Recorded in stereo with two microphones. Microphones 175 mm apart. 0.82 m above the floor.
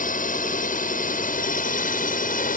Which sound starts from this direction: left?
A drone, at 0.0 s.